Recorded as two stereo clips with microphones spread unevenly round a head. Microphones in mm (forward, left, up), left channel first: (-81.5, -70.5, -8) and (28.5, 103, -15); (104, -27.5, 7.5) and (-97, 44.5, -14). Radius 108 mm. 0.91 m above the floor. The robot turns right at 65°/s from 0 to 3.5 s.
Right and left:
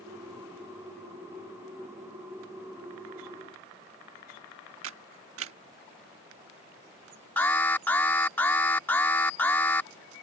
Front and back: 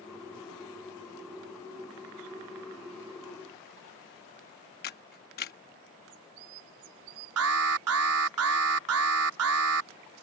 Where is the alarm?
155° left.